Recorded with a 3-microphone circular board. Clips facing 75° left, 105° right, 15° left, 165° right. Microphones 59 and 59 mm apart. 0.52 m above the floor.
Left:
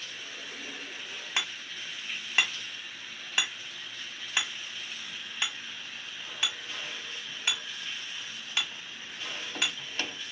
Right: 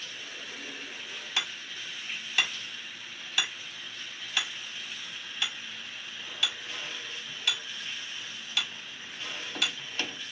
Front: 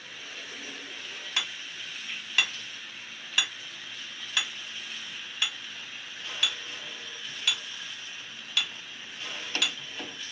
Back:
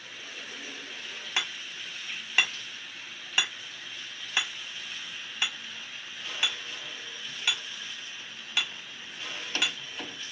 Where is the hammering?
130° left, 1.4 m.